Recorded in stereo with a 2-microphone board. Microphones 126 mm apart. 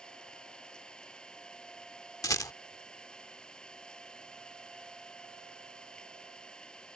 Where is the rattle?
30° left (ahead or behind).